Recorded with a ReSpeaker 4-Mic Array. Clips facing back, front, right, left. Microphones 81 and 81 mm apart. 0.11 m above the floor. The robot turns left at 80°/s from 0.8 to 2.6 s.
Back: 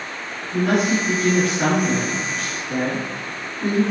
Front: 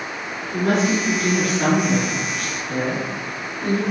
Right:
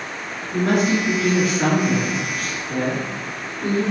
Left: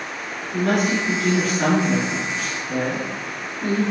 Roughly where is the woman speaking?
Right.